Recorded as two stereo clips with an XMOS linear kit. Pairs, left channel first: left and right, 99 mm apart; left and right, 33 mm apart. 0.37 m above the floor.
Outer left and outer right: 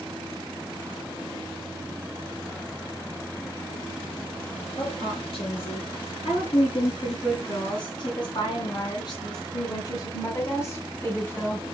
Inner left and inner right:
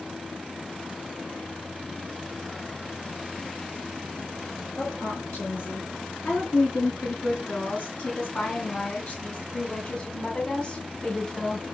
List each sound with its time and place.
4.8 s a woman speaking: 75° left (ahead or behind), 5 m; by 11.7 s 15° left (ahead or behind), 2 m